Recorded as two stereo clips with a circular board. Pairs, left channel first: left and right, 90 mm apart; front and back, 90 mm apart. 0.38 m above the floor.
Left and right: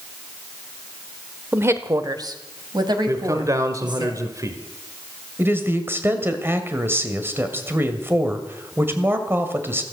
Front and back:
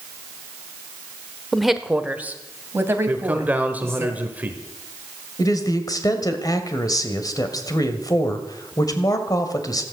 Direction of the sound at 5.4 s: 30° right.